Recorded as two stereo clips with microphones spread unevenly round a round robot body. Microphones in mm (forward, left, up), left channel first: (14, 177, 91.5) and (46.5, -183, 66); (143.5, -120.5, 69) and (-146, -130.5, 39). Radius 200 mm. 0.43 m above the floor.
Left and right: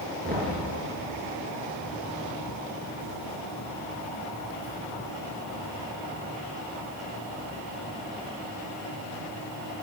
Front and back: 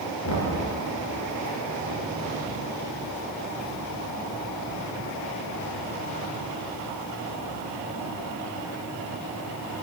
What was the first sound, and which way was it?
Knocking, 20° right.